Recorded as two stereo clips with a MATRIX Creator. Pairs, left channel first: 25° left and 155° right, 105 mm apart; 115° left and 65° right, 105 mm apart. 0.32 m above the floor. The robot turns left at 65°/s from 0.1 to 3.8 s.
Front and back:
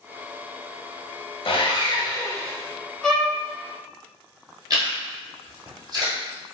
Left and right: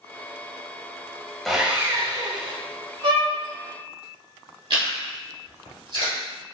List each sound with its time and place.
1.4 s sawing: 25° left, 0.5 m; by 2.5 s 50° right, 0.5 m
3.0 s a violin: 60° right, 0.7 m; by 3.3 s 75° right, 0.7 m
4.7 s chewing: 105° right, 1.5 m